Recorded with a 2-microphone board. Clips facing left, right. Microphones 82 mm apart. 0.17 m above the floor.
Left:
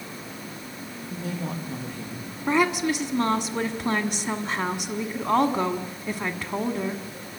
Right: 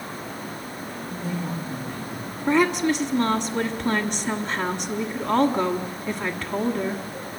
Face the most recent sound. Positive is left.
turn(degrees=10)  # may be behind; listen again after turning